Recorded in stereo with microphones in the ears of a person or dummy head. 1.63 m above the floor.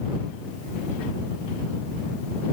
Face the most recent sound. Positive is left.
No sound to turn to.